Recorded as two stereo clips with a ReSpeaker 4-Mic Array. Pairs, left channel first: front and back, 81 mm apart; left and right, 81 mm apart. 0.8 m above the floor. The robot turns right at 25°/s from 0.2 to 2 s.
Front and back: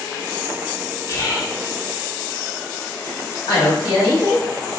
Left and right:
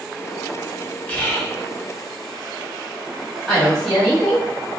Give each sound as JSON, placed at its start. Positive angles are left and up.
{"t": 1.1, "sound": "whispering", "azimuth_deg": 20, "distance_m": 0.9}
{"t": 3.5, "sound": "a woman speaking", "azimuth_deg": 10, "distance_m": 1.6}